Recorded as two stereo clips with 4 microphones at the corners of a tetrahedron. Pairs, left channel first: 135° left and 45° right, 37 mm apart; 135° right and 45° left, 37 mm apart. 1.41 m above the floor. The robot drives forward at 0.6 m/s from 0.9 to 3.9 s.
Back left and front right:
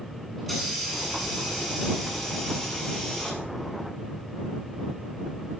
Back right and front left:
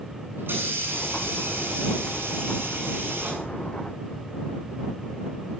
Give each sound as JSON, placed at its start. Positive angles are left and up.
{"t": 0.4, "sound": "a hiss", "azimuth_deg": 50, "distance_m": 7.5}